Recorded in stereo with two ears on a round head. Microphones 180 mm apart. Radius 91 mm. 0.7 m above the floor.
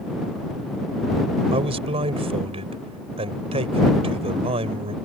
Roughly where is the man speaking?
Right.